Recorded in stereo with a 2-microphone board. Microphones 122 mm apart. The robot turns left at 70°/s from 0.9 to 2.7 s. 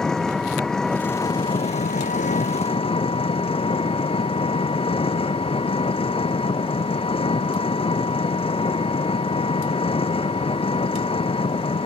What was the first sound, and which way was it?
An engine running, 175° left.